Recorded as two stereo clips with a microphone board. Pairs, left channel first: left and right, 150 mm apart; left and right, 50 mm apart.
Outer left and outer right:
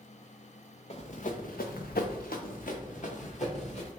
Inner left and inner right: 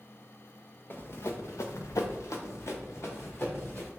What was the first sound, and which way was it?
Running footsteps, 45° left (ahead or behind).